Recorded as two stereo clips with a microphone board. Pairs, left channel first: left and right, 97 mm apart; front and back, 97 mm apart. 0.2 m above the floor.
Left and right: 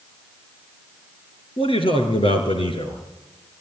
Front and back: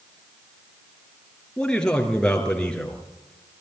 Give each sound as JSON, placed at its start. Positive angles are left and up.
{"t": 1.6, "sound": "a man speaking", "azimuth_deg": 80, "distance_m": 4.0}